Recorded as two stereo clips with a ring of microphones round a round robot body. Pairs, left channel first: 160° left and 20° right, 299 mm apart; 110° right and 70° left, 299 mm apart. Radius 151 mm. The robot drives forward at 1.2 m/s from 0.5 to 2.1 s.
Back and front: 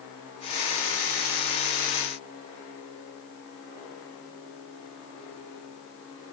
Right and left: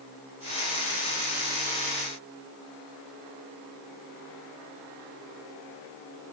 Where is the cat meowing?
No cat meowing in this recording.